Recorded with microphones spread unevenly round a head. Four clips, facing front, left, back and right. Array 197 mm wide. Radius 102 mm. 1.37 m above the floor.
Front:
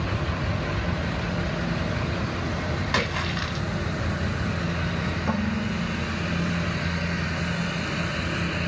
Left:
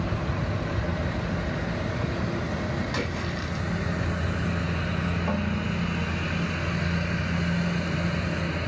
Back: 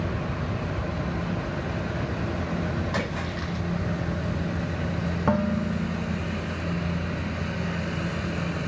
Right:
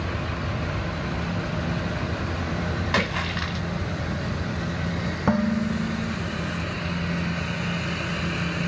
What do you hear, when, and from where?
2.9 s a splash: 60° right, 4.5 m
5.3 s dishes clattering: 105° right, 1.3 m